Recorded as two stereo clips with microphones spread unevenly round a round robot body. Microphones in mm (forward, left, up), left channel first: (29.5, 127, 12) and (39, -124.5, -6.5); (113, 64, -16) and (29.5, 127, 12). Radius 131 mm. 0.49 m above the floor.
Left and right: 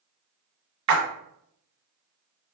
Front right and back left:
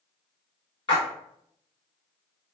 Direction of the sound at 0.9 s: 105° right.